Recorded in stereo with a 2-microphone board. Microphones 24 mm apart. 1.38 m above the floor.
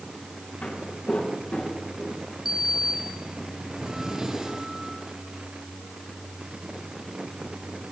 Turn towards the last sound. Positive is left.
turn(degrees=-20)  # may be behind; listen again after turning